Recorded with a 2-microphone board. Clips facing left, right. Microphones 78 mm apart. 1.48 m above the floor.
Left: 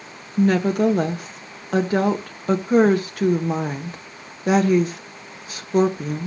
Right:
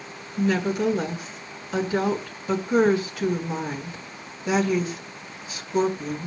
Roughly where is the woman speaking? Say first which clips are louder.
Left 5 dB; left.